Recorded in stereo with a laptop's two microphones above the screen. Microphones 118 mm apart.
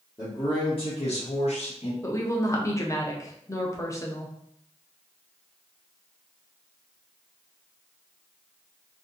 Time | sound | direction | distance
0.2 | a man speaking | 30° left (ahead or behind) | 0.8 m
2.0 | a woman speaking | 25° left (ahead or behind) | 0.6 m